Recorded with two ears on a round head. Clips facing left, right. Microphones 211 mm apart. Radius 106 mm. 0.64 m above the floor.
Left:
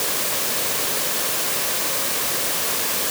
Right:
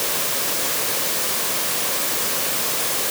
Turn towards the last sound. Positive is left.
No sound to turn to.